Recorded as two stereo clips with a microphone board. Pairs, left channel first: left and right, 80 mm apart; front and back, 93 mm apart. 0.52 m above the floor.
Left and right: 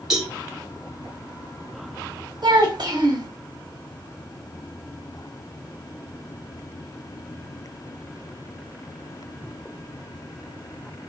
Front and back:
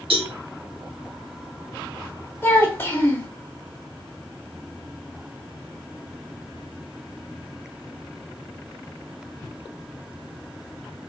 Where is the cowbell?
175° right, 0.9 m.